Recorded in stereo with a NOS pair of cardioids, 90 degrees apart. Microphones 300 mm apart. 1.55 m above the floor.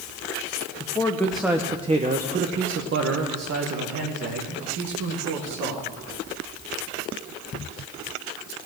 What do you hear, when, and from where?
0.8 s a man speaking: 20° left, 1.0 m; by 5.9 s 70° right, 2.5 m